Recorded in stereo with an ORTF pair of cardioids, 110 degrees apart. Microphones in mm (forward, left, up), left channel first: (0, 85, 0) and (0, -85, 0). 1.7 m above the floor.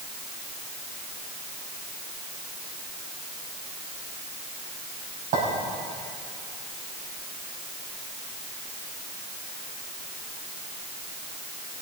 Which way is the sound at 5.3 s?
70° right.